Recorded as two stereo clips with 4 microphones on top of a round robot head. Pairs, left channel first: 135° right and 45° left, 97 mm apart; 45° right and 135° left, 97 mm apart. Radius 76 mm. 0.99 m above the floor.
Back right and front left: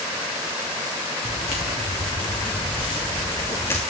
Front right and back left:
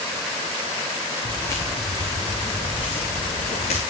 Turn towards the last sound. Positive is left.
turn(degrees=-65)